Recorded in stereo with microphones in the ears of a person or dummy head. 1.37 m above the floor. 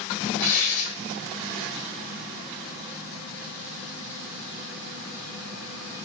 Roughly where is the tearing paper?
Left.